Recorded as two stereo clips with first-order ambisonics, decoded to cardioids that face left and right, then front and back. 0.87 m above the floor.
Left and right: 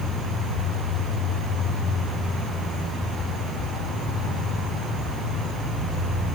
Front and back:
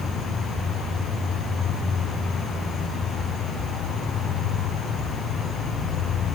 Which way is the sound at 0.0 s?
55° left.